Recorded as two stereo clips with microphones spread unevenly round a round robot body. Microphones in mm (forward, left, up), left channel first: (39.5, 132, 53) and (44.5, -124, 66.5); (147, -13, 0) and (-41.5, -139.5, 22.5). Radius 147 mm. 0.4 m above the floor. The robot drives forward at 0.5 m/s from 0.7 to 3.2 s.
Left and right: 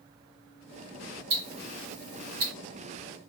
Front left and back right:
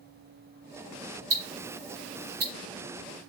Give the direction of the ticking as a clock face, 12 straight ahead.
4 o'clock.